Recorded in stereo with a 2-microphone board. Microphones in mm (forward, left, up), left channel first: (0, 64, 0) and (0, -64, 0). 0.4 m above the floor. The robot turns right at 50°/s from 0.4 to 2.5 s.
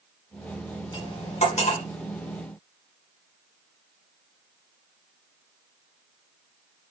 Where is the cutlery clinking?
35° left (ahead or behind), 2 m; by 1.8 s 75° left (ahead or behind), 2 m.